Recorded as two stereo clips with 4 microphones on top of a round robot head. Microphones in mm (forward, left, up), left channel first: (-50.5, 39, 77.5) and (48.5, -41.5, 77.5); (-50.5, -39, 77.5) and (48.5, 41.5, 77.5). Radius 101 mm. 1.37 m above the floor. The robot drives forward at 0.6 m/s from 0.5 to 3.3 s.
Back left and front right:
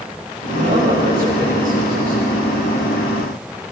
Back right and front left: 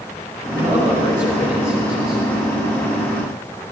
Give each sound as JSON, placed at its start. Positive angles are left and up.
{"t": 0.5, "sound": "a man speaking", "azimuth_deg": -30, "distance_m": 9.5}